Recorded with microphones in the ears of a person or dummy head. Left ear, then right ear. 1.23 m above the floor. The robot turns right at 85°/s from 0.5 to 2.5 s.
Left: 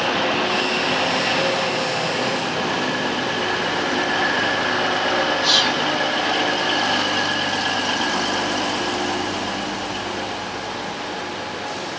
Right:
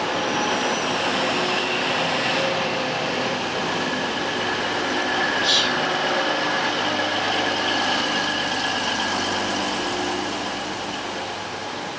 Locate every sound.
5.4 s whispering: 10° left (ahead or behind), 3.5 m